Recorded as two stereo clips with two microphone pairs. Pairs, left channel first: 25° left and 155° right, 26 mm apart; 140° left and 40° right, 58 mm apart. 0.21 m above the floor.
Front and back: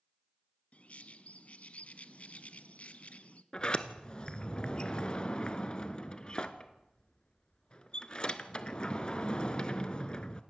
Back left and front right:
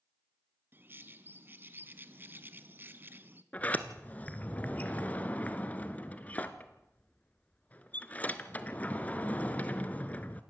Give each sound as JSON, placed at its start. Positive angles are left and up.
{"t": 0.7, "sound": "a bird", "azimuth_deg": 10, "distance_m": 1.0}
{"t": 3.5, "sound": "a sliding door", "azimuth_deg": 80, "distance_m": 1.1}